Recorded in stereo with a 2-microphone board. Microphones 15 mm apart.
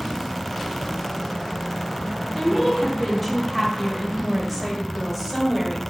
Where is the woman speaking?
20° left (ahead or behind), 1.1 m; by 5.8 s 10° right (ahead or behind), 1.6 m.